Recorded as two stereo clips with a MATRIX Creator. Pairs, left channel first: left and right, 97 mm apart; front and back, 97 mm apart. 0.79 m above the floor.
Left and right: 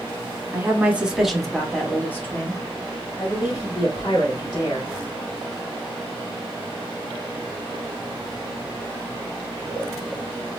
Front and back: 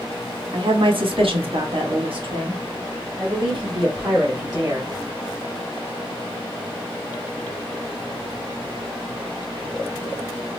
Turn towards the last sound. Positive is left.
turn(degrees=130)